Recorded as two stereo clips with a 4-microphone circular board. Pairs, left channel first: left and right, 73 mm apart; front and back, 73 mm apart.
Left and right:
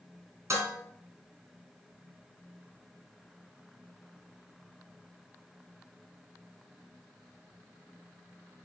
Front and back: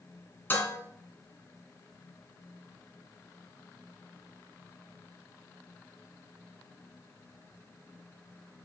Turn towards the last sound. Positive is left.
turn(degrees=-55)